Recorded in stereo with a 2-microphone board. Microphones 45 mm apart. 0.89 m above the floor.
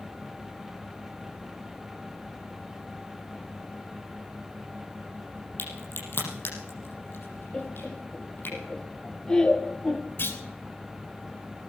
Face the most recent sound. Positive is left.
turn(degrees=55)  # may be behind; listen again after turning